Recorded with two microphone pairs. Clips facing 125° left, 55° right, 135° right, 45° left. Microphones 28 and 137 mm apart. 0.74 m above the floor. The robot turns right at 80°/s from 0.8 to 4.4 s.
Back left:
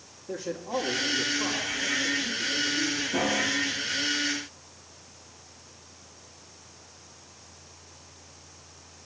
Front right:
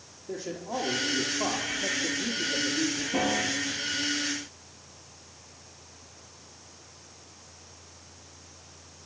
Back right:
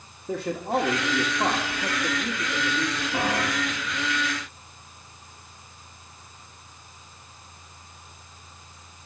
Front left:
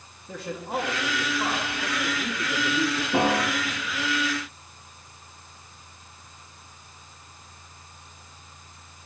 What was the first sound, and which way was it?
A man speaking, 150° right.